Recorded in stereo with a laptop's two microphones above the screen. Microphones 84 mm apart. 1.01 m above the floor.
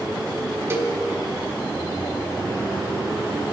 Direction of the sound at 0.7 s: 30° right (ahead or behind).